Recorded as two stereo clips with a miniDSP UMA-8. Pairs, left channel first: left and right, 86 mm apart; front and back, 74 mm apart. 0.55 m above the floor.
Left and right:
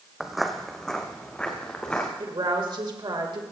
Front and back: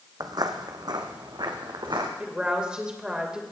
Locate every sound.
0.2 s footsteps: 175° right, 1.1 m; by 2.1 s 165° left, 2 m
2.2 s a woman speaking: 105° right, 2 m